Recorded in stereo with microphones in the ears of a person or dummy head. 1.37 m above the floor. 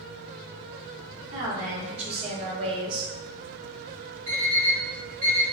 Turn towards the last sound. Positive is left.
turn(degrees=-45)  # may be behind; listen again after turning